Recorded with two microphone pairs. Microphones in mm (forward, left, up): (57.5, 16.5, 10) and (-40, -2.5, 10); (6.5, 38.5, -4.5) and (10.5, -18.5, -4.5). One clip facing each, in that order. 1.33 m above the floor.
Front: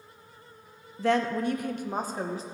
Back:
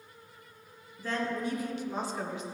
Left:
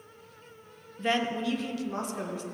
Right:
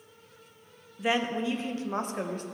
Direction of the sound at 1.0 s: Straight ahead.